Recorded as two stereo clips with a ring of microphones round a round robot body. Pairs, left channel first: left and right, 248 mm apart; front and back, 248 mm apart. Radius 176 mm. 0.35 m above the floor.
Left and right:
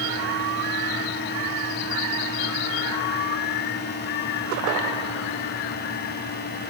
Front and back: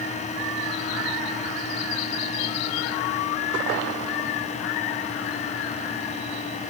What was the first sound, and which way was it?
Only background noise.